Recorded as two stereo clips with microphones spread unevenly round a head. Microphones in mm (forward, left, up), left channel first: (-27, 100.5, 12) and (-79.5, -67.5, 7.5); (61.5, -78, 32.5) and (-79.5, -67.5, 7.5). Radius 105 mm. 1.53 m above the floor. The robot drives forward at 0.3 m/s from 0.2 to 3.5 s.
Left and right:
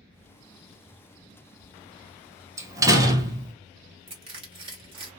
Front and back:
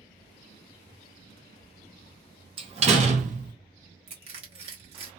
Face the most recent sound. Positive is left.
turn(degrees=-150)